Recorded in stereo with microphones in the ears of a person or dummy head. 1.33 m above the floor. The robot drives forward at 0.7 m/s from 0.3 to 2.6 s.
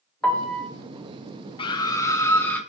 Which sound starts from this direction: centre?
A piano, at 0.2 s.